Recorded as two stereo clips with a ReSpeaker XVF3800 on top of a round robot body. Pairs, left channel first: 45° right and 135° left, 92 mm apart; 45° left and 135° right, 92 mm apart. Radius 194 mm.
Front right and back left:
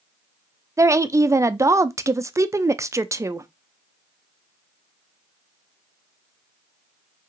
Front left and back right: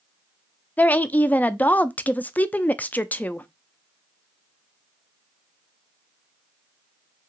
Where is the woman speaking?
105° left, 0.6 m.